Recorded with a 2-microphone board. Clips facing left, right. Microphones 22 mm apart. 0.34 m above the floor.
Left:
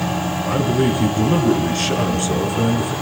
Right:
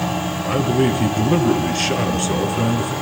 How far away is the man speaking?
About 5 m.